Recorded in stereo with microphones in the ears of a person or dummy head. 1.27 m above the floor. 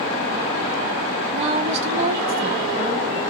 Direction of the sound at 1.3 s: 30° right (ahead or behind).